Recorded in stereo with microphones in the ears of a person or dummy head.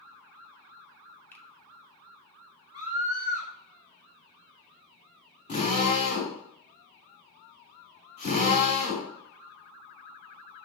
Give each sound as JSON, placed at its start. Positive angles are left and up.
{"t": 1.3, "sound": "a finger snap", "side_deg": 15, "distance_m": 1.6}
{"t": 2.7, "sound": "a scream", "side_deg": 40, "distance_m": 5.5}
{"t": 5.5, "sound": "a drill", "side_deg": 35, "distance_m": 5.0}